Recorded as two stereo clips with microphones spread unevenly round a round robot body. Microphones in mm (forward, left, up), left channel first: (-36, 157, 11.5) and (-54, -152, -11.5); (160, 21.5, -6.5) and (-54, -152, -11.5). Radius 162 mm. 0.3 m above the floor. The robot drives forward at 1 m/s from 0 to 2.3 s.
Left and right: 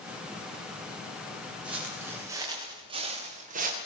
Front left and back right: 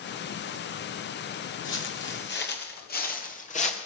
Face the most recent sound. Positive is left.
turn(degrees=-30)